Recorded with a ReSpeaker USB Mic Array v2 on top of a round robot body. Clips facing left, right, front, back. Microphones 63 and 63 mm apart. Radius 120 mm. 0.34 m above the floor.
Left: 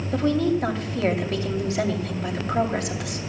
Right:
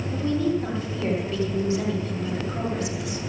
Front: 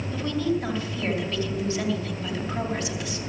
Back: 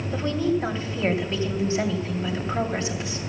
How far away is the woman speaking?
About 2.5 m.